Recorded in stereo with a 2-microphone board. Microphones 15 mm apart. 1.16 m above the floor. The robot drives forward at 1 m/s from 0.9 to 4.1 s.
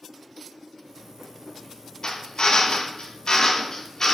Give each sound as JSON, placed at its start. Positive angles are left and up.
{"t": 2.0, "sound": "a drill", "side_deg": 65, "distance_m": 1.3}